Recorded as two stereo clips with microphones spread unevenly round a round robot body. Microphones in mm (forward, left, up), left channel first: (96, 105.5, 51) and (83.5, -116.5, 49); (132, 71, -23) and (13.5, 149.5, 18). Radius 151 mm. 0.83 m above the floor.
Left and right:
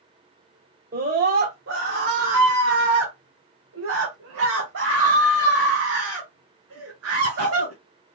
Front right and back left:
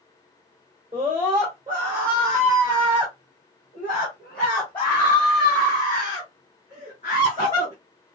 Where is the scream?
145° right, 1.7 m; by 7.7 s 105° right, 4.5 m.